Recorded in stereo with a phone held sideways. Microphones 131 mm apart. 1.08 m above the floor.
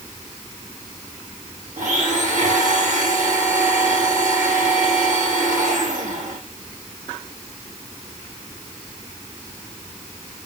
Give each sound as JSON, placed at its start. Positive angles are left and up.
{"t": 1.8, "sound": "a blender", "side_deg": -75, "distance_m": 7.5}